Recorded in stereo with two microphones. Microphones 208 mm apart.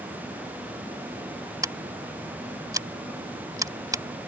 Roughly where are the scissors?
Centre.